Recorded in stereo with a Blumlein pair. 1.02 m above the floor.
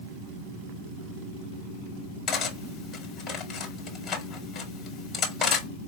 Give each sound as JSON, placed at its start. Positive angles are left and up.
{"t": 2.3, "sound": "cutlery clinking", "azimuth_deg": 30, "distance_m": 1.2}